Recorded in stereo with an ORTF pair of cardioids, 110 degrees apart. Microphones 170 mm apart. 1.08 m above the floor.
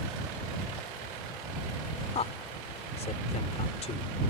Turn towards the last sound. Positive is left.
turn(degrees=40)